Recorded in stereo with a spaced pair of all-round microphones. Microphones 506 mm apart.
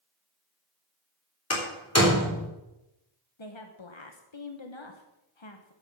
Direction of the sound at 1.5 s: 30° left (ahead or behind).